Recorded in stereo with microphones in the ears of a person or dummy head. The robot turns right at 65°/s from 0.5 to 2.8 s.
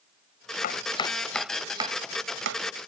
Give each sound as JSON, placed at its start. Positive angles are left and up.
{"t": 0.6, "sound": "chopping", "side_deg": 50}